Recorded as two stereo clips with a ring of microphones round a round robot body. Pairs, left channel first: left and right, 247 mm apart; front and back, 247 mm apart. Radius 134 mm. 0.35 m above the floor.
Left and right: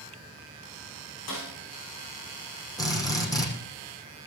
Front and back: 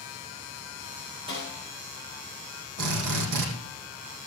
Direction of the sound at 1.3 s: 110° left.